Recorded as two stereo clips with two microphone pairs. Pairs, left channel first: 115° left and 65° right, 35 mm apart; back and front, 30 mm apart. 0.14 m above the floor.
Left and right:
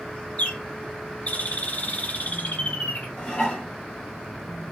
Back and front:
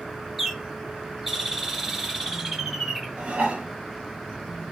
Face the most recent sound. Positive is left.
turn(degrees=50)